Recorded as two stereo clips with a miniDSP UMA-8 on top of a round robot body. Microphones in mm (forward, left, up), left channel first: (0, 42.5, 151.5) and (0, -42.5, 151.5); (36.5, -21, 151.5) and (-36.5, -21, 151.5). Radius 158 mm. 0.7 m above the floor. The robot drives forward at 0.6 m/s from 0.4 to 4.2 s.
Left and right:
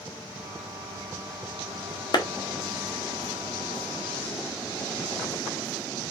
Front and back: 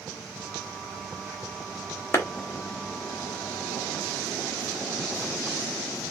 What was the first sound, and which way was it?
A clap, 55° left.